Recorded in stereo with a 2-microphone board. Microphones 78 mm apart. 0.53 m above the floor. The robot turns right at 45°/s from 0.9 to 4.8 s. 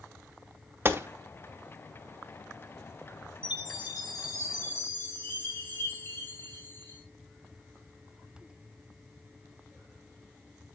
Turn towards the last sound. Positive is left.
turn(degrees=155)